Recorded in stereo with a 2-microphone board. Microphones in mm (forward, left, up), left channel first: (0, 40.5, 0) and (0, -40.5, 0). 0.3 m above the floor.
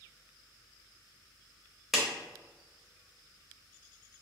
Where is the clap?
Centre (ahead or behind), 0.7 m.